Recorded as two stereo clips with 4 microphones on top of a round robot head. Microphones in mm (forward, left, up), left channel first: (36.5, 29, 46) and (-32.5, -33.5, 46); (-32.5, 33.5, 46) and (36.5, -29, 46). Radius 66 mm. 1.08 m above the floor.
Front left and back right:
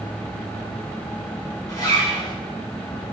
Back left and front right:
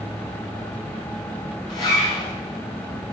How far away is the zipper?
About 8 m.